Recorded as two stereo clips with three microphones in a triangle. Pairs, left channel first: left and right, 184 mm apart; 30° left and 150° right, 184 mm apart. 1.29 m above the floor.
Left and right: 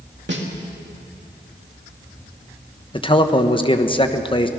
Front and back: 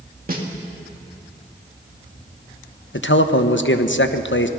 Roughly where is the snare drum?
Right.